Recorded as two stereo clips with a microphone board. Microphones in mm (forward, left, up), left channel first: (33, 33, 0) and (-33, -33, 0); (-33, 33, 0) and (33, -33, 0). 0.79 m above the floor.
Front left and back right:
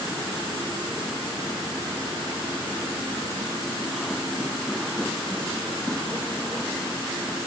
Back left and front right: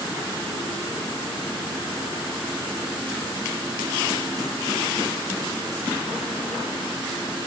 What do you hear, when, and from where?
Only background noise.